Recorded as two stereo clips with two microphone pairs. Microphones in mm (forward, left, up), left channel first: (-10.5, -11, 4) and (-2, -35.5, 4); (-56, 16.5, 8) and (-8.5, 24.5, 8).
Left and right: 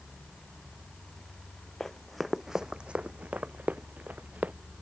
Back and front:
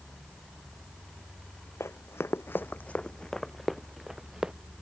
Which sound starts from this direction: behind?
Running footsteps, at 1.8 s.